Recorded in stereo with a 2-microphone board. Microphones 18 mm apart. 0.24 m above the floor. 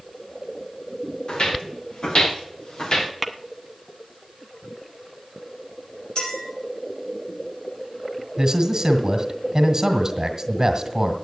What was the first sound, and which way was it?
Footsteps, 80° left.